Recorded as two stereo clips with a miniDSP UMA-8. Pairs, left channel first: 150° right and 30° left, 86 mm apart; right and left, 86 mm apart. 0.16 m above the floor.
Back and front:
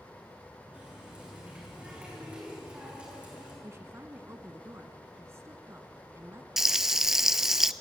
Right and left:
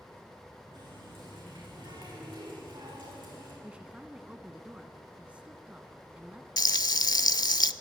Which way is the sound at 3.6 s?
25° left.